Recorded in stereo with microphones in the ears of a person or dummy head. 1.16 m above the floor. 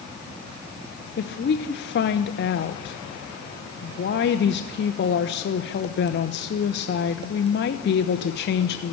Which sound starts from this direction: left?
A woman speaking, at 1.2 s.